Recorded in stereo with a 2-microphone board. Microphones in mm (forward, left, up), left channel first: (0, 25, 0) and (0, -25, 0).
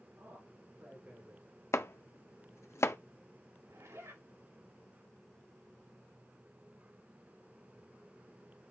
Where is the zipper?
80° right, 3.5 m.